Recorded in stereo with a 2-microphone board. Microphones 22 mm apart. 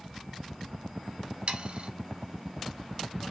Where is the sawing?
70° right (ahead or behind), 0.7 m.